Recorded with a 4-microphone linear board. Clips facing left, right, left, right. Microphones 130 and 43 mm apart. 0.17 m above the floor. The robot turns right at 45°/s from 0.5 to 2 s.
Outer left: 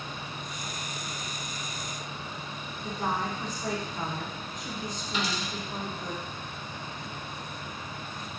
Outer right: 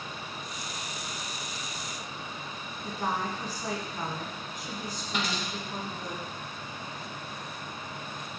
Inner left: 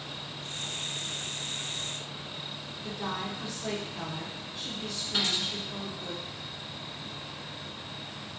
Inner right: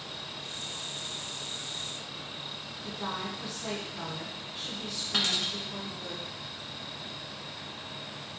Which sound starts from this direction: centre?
A woman speaking, at 2.8 s.